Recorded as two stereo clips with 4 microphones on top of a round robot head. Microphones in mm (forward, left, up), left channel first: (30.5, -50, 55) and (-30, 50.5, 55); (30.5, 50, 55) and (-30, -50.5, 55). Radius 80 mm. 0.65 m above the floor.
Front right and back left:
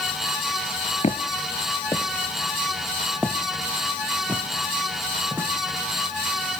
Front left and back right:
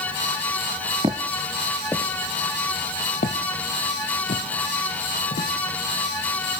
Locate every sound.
1.0 s footsteps: 75° right, 0.7 m; by 5.5 s 45° left, 2.5 m